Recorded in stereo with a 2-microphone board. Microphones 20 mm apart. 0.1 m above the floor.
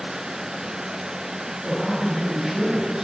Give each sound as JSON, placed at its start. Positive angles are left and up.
{"t": 1.6, "sound": "a man speaking", "side_deg": -25, "distance_m": 1.8}